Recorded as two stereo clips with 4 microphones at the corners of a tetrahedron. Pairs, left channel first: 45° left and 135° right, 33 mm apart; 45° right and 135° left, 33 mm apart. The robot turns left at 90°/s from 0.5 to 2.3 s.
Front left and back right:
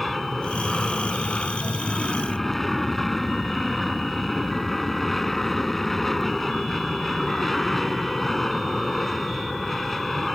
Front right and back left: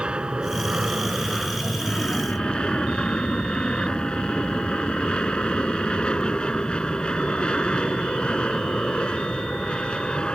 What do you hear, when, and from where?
0.0 s an aircraft: 130° left; by 10.4 s 35° right